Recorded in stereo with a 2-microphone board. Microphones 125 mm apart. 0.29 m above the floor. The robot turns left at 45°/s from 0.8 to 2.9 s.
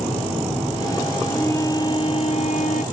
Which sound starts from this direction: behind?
A flute, at 1.3 s.